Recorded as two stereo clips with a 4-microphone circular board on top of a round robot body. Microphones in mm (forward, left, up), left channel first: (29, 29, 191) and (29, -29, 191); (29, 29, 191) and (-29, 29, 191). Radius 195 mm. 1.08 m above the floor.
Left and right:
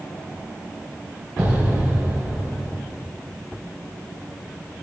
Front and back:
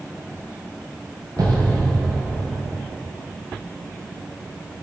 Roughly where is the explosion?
Behind.